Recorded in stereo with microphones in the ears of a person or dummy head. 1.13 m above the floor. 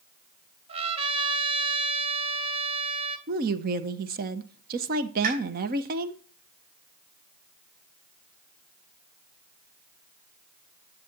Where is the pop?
45° right (ahead or behind), 5 m.